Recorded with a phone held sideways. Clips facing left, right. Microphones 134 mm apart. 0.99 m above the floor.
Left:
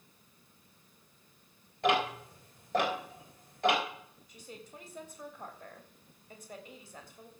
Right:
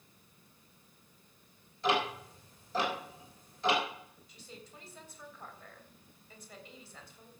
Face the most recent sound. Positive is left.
turn(degrees=50)  # may be behind; listen again after turning